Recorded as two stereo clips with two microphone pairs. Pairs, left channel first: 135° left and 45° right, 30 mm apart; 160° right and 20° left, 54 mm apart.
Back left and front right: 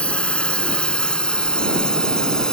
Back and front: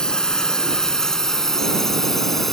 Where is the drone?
130° left; by 2.5 s 120° left.